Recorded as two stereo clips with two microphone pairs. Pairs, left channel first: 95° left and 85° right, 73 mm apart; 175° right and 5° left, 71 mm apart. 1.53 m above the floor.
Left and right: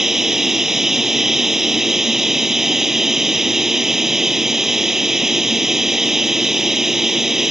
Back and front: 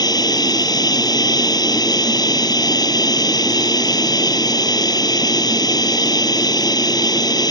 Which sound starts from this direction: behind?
Running water, at 0.0 s.